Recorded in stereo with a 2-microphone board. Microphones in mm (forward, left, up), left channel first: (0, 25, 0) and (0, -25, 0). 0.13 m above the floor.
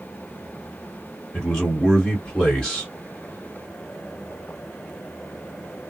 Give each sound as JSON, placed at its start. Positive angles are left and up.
{"t": 1.3, "sound": "a man speaking", "side_deg": 20, "distance_m": 2.0}